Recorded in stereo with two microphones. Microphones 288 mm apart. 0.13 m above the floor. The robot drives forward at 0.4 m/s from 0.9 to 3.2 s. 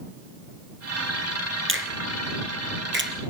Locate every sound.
1.7 s a finger snap: 45° right (ahead or behind), 1.3 m; by 3.1 s 40° right (ahead or behind), 1.5 m